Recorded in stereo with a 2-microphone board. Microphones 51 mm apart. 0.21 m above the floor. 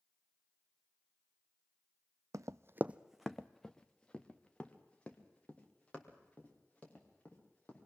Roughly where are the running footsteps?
Right.